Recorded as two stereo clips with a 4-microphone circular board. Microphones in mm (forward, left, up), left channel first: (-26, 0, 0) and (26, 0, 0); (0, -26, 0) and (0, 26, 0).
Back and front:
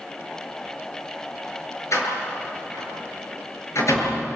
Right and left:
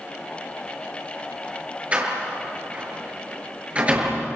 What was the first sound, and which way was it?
A door slam, 155° left.